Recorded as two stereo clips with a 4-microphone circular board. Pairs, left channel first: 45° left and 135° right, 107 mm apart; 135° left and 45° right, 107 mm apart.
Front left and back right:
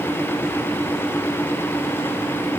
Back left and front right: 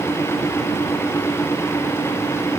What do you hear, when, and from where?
Only background noise.